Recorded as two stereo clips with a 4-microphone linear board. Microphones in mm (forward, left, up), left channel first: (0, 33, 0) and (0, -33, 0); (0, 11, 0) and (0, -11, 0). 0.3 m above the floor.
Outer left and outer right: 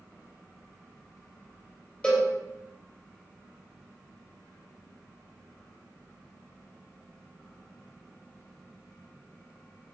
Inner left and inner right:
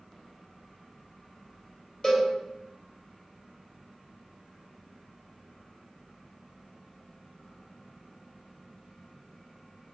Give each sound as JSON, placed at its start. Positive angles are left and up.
{"t": 2.0, "sound": "a cowbell", "side_deg": 15, "distance_m": 1.5}